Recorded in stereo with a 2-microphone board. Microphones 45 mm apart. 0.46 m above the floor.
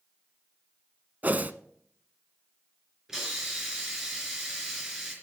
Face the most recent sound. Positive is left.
turn(degrees=-10)  # may be behind; listen again after turning